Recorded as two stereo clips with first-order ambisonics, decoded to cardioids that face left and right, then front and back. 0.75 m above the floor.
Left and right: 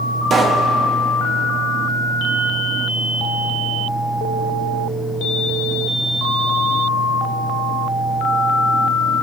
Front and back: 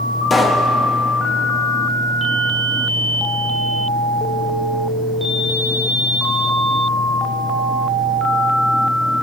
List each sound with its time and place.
0.3 s a pop: 60° right, 0.7 m